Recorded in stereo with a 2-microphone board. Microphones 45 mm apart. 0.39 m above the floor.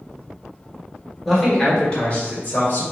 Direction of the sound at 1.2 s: Centre (ahead or behind).